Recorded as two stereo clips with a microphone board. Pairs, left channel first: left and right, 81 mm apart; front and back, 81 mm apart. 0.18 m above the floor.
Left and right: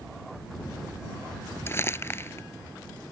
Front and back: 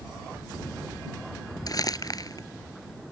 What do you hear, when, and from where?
1.7 s crumpling: 35° left